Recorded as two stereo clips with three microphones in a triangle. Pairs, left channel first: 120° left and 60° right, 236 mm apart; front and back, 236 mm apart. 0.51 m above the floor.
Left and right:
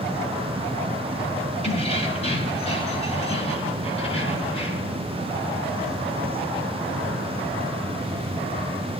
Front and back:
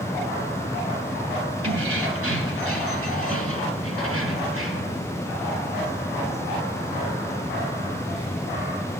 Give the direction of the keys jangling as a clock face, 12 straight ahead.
6 o'clock.